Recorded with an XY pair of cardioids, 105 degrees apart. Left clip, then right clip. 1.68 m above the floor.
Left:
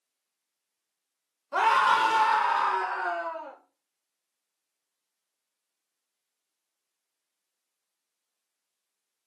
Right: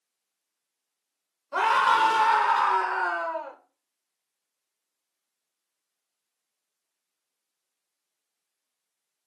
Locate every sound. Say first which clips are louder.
1.5 s a scream: right 1 dB; 10° left, 1.1 m; by 3.6 s 60° right, 0.9 m